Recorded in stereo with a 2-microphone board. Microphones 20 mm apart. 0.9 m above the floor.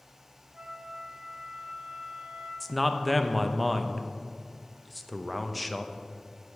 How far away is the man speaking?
About 0.5 m.